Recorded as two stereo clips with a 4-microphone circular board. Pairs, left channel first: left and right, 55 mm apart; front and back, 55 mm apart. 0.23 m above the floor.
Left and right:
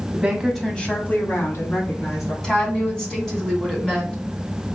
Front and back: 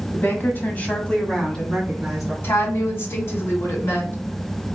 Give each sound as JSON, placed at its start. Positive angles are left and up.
{"t": 0.1, "sound": "a woman speaking", "azimuth_deg": -25, "distance_m": 1.5}
{"t": 2.4, "sound": "a woman speaking", "azimuth_deg": 15, "distance_m": 2.0}